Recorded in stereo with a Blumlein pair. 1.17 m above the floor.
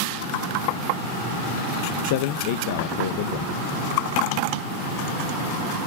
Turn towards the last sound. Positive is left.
turn(degrees=50)